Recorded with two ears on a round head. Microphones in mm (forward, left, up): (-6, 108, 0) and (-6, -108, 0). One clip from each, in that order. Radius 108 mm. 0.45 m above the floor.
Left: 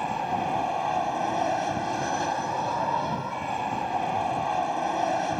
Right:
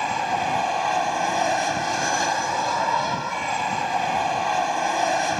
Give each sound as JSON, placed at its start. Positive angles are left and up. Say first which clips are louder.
{"t": 0.0, "sound": "an aircraft", "louder": "right 4 dB", "side_deg": -55}